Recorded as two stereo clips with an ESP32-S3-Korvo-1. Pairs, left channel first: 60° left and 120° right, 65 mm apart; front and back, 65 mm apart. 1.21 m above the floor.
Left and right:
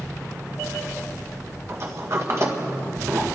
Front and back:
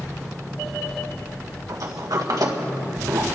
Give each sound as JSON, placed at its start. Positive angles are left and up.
{"t": 1.7, "sound": "a sliding door", "azimuth_deg": -160, "distance_m": 1.7}